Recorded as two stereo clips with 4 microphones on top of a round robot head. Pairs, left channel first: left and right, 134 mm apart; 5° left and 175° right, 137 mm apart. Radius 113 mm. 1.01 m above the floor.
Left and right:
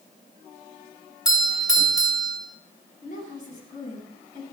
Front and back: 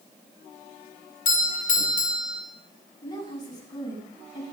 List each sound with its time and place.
1.2 s a doorbell: 30° left, 4 m
3.0 s a woman speaking: 65° left, 7.5 m